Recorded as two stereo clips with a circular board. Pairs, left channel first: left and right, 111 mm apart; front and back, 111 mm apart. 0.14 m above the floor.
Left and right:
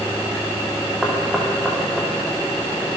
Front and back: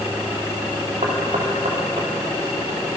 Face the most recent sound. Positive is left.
turn(degrees=-175)